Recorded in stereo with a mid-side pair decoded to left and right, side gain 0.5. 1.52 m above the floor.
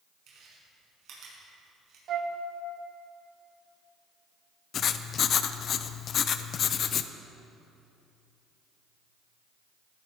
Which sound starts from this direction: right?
Chewing, at 0.3 s.